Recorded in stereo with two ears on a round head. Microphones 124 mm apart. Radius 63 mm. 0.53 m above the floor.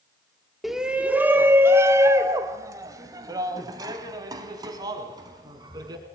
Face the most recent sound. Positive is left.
turn(degrees=-30)  # may be behind; listen again after turning